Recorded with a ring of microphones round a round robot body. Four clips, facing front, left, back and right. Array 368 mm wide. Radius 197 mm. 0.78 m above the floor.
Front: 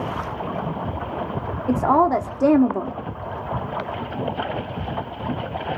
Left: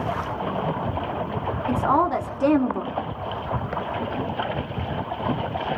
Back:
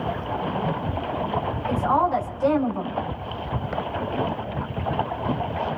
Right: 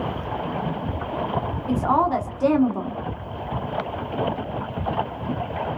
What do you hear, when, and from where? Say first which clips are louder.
1.7 s a woman speaking: right 1 dB, front 4 dB; 10° left, 2 m